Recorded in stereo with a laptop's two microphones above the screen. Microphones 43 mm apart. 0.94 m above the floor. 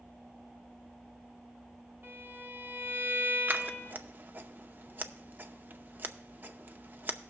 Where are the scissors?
45° right (ahead or behind), 0.6 m.